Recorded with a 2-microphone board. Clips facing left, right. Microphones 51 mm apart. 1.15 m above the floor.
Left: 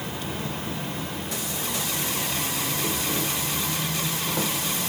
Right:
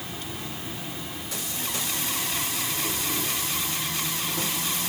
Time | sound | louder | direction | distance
0.0 | an insect | left 5 dB | 55° left (ahead or behind) | 1.8 m